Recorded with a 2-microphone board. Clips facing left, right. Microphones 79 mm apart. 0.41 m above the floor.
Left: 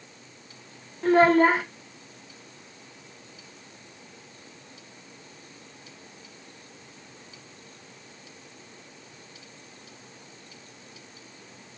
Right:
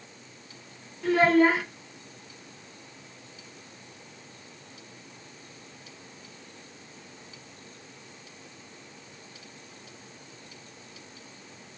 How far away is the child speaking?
About 0.5 m.